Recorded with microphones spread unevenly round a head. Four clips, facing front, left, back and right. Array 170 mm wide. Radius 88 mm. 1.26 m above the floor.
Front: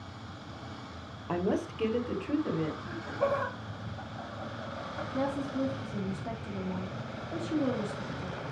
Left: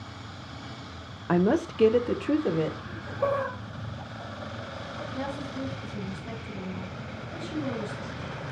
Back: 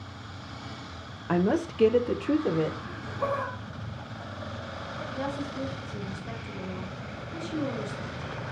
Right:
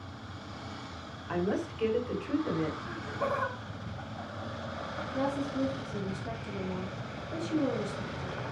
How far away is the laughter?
About 4 m.